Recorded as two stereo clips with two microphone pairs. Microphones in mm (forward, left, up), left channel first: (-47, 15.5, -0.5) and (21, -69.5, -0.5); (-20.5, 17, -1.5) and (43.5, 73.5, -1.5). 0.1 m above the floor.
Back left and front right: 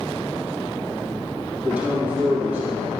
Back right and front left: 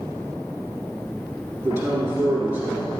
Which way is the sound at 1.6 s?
10° left.